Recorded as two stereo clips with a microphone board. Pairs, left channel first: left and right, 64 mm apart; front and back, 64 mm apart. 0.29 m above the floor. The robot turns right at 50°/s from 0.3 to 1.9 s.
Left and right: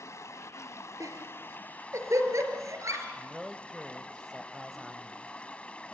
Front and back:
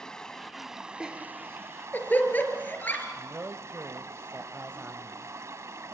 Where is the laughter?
105° right, 4.5 m; by 3.1 s 60° right, 4.5 m.